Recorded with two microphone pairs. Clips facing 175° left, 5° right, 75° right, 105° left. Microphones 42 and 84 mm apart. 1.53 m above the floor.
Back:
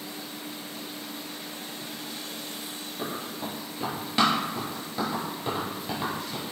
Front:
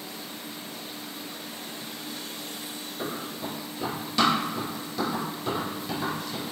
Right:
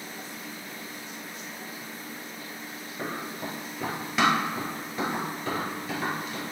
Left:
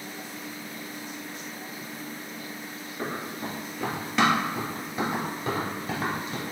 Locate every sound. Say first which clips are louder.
3.0 s running footsteps: even, left 1 dB; 120° right, 1.8 m; by 6.4 s 115° left, 1.7 m